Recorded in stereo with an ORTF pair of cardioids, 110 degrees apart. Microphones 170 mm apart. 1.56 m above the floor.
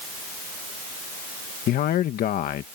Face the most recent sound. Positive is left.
turn(degrees=65)